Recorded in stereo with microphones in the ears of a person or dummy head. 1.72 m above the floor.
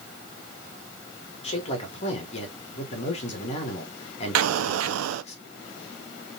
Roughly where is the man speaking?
Left.